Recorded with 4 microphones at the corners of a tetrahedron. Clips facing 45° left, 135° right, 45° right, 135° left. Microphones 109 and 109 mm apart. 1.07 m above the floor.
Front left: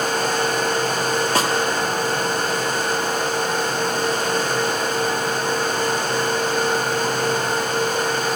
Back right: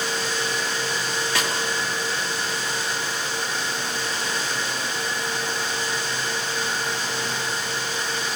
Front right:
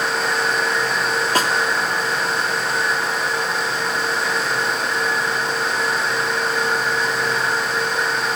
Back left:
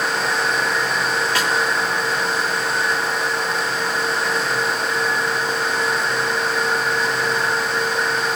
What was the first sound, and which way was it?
A snare drum, straight ahead.